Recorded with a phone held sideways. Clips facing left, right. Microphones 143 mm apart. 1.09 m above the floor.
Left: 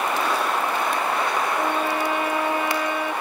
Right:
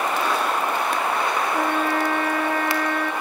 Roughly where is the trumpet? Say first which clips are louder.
Right 1 dB; right.